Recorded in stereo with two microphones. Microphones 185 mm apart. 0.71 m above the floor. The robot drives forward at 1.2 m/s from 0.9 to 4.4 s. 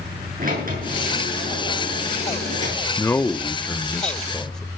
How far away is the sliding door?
About 9 m.